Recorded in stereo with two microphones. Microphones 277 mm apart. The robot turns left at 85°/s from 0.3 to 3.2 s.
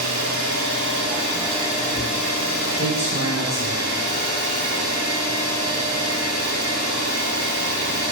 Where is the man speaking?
25° right (ahead or behind), 1.4 m.